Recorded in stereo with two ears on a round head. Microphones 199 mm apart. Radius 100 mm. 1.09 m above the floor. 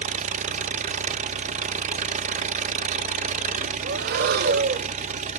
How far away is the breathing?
About 0.6 m.